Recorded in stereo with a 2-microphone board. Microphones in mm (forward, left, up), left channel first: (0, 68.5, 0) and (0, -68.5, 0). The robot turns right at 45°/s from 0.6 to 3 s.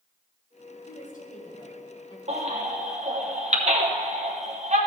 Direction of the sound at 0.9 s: 85° left.